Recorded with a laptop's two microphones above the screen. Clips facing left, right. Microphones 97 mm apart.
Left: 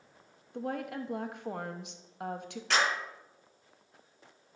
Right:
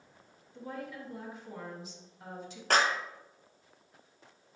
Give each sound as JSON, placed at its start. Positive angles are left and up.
{"t": 0.5, "sound": "a woman speaking", "side_deg": 75, "distance_m": 0.8}
{"t": 2.7, "sound": "a clap", "side_deg": -50, "distance_m": 1.0}